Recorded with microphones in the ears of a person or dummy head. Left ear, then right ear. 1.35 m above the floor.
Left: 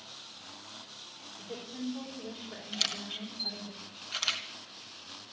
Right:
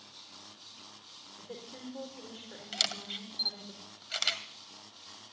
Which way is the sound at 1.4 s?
55° right (ahead or behind).